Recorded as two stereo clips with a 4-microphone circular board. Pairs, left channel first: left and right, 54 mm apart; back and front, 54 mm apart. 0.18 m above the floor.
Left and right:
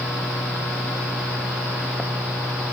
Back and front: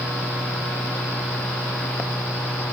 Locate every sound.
Only background noise.